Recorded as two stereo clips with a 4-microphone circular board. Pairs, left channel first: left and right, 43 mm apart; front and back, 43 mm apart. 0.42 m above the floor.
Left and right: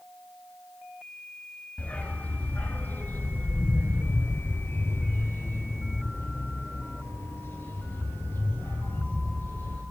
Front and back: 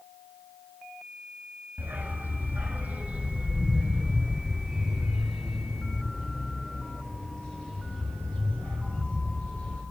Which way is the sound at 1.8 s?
145° left.